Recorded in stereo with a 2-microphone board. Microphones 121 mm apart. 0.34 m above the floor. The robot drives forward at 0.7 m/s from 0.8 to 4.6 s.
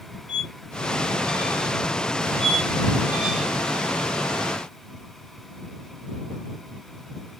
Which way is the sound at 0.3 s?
Centre (ahead or behind).